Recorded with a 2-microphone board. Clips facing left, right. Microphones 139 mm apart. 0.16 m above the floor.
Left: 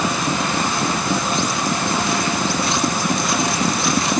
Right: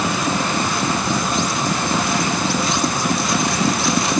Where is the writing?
No writing in this recording.